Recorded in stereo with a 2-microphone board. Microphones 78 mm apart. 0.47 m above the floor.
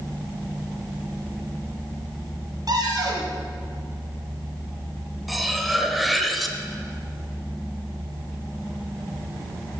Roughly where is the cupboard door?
Right.